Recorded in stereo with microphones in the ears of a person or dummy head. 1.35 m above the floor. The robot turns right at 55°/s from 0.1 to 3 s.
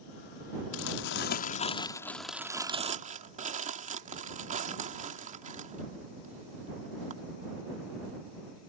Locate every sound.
0.7 s crumpling: 80° left; by 7.1 s 40° right (ahead or behind)